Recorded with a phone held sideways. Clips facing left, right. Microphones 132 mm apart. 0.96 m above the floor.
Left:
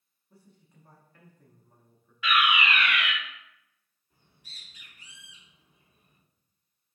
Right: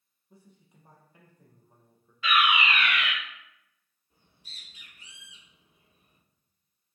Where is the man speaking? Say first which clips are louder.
Right 1 dB; 20° right (ahead or behind), 0.6 m.